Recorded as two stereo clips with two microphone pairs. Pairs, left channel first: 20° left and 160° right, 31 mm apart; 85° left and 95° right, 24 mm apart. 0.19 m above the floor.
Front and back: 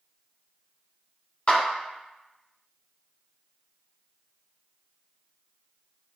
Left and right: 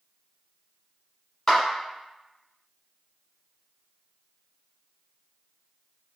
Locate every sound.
1.5 s a clap: 10° left, 1.2 m